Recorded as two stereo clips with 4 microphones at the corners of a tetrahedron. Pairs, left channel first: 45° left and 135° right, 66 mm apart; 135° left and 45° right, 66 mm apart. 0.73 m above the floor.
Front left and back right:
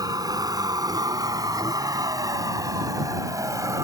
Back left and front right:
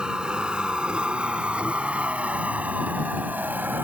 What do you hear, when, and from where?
0.0 s a vehicle: 120° right; by 3.9 s 105° right